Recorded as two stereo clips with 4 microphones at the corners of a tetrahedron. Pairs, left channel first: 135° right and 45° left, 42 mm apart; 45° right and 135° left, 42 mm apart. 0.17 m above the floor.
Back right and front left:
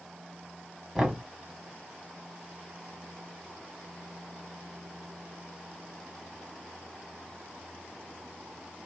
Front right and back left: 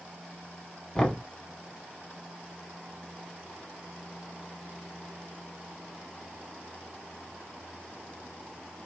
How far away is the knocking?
About 0.9 m.